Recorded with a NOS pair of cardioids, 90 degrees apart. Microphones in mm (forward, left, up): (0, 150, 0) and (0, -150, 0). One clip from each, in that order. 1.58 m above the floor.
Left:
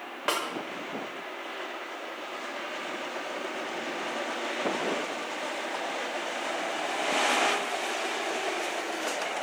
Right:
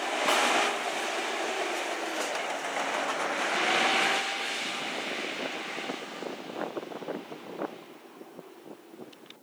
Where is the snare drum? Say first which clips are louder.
Right 2 dB; 15° left, 6 m.